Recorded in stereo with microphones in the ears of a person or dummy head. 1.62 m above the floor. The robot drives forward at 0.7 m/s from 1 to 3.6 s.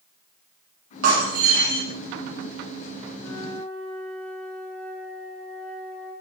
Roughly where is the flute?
Centre.